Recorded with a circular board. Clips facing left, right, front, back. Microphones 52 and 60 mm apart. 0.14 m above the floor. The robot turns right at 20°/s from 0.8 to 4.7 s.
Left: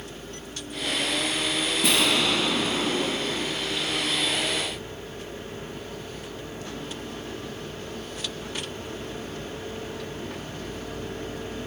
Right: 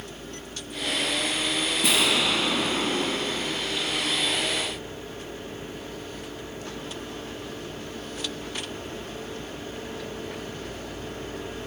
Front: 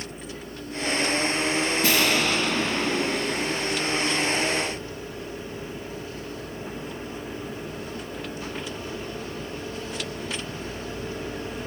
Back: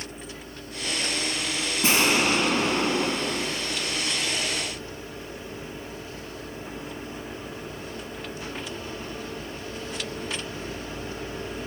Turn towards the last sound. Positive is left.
turn(degrees=-125)